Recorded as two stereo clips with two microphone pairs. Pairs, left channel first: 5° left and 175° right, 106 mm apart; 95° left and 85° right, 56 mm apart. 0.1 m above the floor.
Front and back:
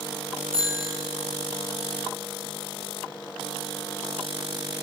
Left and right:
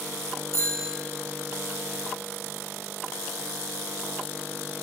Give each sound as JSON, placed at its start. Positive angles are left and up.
{"t": 0.5, "sound": "a bicycle bell", "azimuth_deg": 115, "distance_m": 4.0}